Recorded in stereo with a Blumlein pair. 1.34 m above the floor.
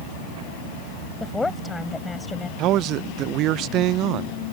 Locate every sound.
1.2 s a woman speaking: 10° left
2.6 s a man speaking: 35° right